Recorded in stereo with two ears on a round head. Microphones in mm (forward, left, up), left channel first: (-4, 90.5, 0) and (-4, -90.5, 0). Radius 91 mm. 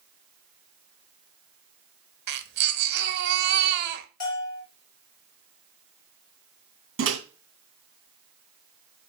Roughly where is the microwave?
Right.